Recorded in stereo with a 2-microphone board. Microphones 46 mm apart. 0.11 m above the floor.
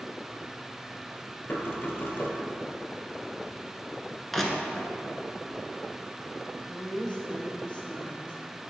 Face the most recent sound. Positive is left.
turn(degrees=20)  # may be behind; listen again after turning